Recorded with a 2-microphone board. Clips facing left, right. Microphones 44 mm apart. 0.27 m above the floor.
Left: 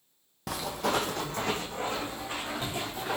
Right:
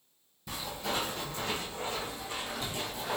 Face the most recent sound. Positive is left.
turn(degrees=30)  # may be behind; listen again after turning